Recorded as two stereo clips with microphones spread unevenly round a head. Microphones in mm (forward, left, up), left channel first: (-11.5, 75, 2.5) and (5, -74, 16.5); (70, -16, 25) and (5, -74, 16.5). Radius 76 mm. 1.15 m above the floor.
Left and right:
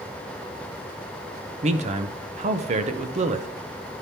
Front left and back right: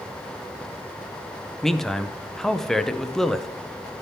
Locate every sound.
1.6 s a man speaking: 45° right, 0.7 m